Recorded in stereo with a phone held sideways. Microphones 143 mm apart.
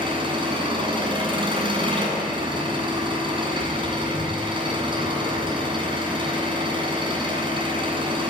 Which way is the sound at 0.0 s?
35° right (ahead or behind).